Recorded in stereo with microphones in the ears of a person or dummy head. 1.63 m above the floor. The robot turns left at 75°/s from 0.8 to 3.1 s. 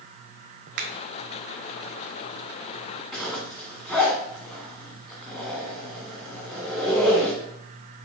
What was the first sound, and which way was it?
A finger snap, 50° right (ahead or behind).